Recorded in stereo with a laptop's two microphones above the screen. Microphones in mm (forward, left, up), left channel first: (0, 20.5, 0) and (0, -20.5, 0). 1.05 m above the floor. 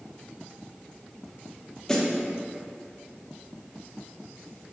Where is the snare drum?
10° left (ahead or behind), 1.3 m.